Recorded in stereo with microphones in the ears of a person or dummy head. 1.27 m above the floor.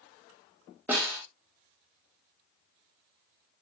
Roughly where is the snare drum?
Centre.